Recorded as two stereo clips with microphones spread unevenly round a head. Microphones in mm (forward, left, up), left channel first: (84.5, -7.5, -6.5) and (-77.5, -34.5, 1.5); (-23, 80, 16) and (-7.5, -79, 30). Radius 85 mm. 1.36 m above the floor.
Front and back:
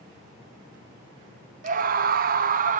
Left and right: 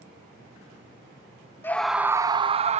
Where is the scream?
160° left, 0.6 m; by 2.8 s 130° right, 0.8 m.